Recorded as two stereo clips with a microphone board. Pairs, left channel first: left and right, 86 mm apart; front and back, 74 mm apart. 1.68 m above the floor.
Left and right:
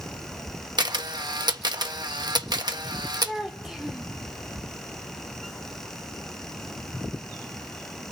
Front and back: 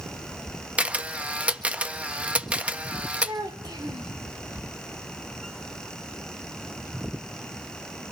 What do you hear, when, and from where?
0.8 s a camera shutter: 110° right, 1.5 m
3.2 s a child speaking: 175° right, 4 m